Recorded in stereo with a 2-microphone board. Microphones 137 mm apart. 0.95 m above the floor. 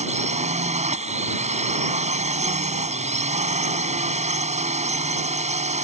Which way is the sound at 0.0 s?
60° right (ahead or behind).